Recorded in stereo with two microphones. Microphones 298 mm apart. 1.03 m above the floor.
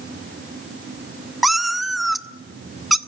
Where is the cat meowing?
Centre (ahead or behind), 0.7 m.